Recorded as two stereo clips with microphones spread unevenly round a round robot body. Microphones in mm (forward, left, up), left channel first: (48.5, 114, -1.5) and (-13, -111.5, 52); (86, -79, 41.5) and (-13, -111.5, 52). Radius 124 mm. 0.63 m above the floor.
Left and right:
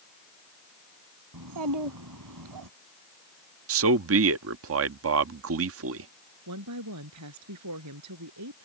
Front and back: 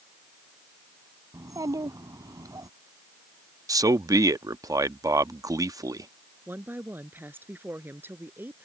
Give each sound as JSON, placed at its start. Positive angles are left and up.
{"t": 1.3, "sound": "a child speaking", "azimuth_deg": -105}
{"t": 3.7, "sound": "a man speaking", "azimuth_deg": -110}
{"t": 6.5, "sound": "a woman speaking", "azimuth_deg": -90}